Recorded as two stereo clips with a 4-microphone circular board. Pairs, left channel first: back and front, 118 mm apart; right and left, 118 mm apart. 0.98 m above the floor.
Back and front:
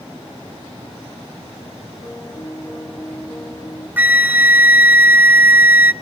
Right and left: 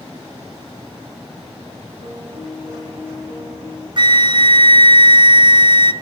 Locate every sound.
2.0 s a piano: 110° left, 9 m
4.0 s a flute: 70° left, 0.7 m